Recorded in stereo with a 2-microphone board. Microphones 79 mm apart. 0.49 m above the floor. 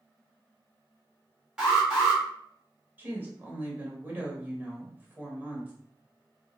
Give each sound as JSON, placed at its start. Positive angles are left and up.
{"t": 1.6, "sound": "an alarm", "side_deg": -10, "distance_m": 2.0}
{"t": 3.0, "sound": "a woman speaking", "side_deg": -25, "distance_m": 1.7}